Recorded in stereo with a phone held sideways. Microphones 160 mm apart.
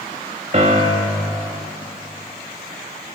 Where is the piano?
45° right (ahead or behind), 2 m.